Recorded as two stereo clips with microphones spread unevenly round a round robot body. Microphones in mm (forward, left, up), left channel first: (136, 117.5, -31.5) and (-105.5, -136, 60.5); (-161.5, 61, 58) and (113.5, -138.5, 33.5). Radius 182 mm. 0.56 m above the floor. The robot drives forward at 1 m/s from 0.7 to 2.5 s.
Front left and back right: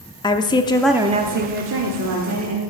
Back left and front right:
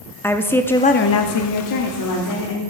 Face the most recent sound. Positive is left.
turn(degrees=170)